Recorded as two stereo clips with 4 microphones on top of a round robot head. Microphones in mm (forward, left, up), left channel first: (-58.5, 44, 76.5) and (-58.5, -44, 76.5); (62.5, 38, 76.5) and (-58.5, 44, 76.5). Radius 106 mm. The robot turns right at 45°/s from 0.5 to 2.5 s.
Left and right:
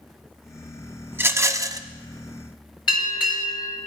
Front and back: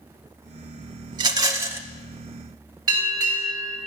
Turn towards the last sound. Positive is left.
turn(degrees=120)